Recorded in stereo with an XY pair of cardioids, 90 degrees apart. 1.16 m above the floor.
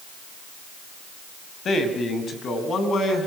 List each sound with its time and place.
1.6 s a man speaking: 55° left, 6 m; by 3.3 s 60° left, 8.5 m